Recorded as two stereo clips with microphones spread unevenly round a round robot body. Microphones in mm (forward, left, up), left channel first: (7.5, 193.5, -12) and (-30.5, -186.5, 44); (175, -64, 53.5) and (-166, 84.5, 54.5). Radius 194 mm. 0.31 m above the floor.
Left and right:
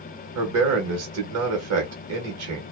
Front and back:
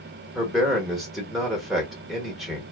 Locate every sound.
0.3 s a man speaking: 115° right, 1.0 m